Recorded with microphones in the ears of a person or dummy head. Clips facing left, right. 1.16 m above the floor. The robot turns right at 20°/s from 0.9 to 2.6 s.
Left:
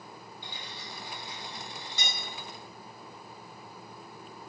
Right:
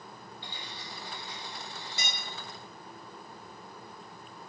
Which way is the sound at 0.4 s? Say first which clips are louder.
Even; 10° left (ahead or behind).